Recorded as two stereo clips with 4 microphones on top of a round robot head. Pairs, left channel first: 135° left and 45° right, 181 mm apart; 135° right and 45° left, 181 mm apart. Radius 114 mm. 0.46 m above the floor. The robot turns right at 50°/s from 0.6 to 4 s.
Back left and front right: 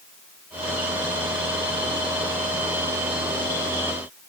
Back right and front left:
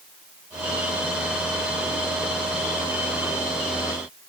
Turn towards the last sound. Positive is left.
No sound to turn to.